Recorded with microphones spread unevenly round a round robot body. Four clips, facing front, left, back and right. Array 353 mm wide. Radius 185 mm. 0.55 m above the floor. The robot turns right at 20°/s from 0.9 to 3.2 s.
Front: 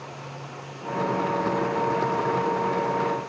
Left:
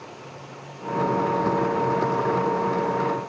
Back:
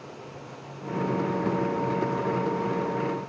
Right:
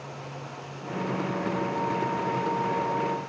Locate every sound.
Only background noise.